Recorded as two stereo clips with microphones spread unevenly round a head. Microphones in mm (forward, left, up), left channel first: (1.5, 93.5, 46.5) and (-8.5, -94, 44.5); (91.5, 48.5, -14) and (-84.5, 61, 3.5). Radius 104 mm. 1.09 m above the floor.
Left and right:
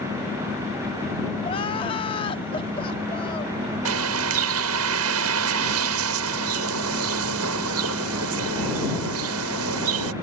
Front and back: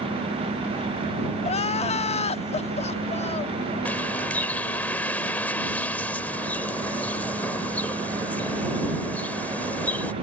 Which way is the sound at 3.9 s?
90° right.